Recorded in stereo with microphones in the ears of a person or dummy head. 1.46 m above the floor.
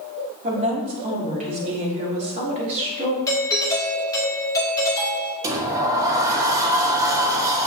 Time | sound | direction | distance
0.4 | a woman speaking | 40° right (ahead or behind) | 2 m
3.3 | a doorbell | 20° left (ahead or behind) | 1.9 m
5.4 | a sliding door | 15° right (ahead or behind) | 0.9 m